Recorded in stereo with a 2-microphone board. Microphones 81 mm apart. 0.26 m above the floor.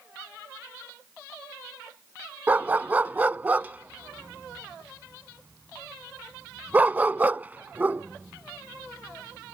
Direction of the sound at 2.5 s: 20° right (ahead or behind).